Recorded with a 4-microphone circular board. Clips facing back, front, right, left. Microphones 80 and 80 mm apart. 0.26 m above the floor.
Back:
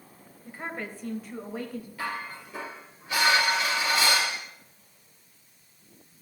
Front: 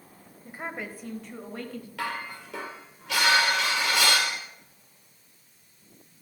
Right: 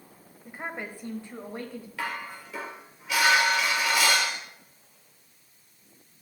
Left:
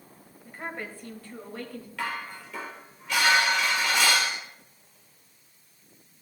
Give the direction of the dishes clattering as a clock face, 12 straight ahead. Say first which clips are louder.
Front 2 dB, left 1 dB; 12 o'clock.